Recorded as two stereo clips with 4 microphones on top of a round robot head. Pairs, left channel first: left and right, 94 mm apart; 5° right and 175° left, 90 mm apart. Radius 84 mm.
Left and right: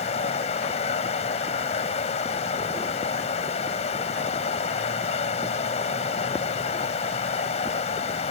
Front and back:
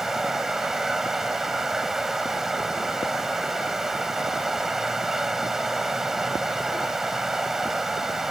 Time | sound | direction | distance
0.0 | running water | 90° left | ?